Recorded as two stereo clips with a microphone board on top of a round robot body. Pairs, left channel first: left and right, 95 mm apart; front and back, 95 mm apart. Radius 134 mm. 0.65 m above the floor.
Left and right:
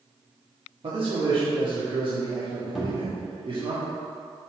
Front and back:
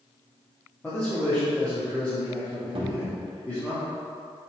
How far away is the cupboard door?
About 1.6 m.